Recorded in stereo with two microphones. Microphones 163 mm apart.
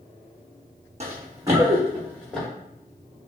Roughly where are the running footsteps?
Right.